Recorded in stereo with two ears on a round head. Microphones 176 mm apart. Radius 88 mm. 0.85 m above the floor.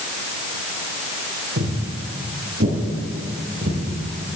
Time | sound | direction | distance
1.6 | footsteps | 65° right (ahead or behind) | 3.5 m